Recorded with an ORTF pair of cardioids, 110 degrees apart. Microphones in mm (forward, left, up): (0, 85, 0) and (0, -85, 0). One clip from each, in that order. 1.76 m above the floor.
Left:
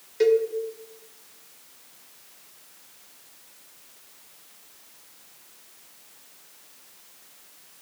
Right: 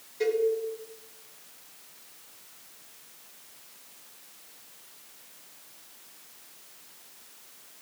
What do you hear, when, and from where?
0.2 s a cowbell: 60° left, 1.4 m